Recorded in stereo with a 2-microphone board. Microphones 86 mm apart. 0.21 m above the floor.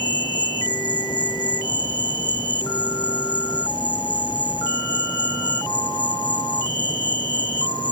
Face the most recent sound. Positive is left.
turn(degrees=65)  # may be behind; listen again after turning